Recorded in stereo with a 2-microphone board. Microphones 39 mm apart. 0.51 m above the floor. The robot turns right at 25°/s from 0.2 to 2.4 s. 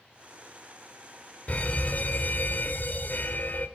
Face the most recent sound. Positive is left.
turn(degrees=45)  # may be behind; listen again after turning